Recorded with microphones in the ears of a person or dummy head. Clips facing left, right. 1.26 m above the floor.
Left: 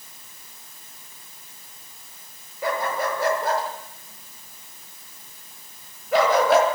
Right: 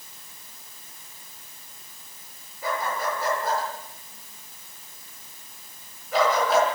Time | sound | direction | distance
2.6 | a dog barking | 55° left (ahead or behind) | 6 m